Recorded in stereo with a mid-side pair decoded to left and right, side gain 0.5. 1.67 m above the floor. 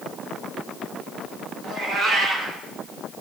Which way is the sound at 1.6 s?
60° right.